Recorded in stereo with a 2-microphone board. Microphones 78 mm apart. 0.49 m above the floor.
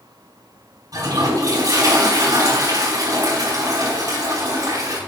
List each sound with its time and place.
0.9 s a toilet flushing: 55° right (ahead or behind), 4 m